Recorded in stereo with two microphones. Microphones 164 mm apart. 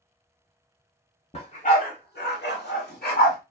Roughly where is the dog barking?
Left.